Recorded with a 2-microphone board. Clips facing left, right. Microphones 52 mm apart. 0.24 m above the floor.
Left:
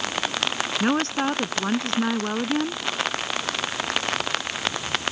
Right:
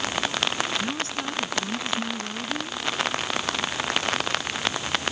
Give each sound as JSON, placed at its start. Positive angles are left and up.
{"t": 0.8, "sound": "a woman speaking", "side_deg": 60}